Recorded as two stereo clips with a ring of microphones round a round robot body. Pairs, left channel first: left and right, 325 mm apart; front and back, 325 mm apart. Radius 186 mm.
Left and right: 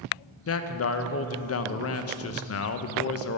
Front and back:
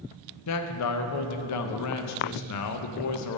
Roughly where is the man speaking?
Ahead left.